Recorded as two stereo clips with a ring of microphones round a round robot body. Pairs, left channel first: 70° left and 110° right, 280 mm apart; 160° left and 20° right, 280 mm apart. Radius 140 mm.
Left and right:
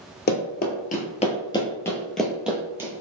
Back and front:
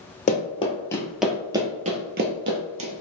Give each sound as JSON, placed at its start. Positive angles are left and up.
{"t": 0.3, "sound": "running footsteps", "azimuth_deg": 105, "distance_m": 1.0}